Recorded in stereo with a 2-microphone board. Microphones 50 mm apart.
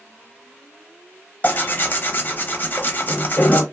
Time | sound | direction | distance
1.4 | tearing paper | 35° left (ahead or behind) | 0.5 m